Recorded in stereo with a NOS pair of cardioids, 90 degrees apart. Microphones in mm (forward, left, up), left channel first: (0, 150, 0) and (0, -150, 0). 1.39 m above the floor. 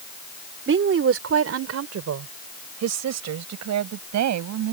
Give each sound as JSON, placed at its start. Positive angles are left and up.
{"t": 0.7, "sound": "a woman speaking", "azimuth_deg": -45}